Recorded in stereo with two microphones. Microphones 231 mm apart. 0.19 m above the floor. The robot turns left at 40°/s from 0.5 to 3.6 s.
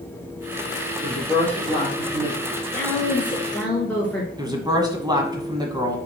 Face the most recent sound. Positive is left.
turn(degrees=-15)  # may be behind; listen again after turning